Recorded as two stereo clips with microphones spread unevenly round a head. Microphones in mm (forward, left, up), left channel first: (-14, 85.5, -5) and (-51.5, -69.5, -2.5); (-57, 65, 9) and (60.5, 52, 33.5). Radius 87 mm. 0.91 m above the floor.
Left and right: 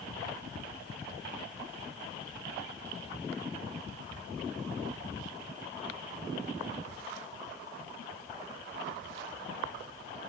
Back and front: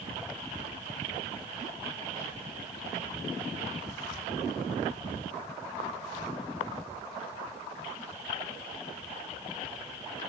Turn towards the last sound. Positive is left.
No sound to turn to.